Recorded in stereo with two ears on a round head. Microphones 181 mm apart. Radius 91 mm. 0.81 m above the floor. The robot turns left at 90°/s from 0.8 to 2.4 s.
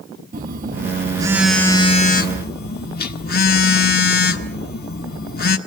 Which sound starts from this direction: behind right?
A phone buzzing, at 0.3 s.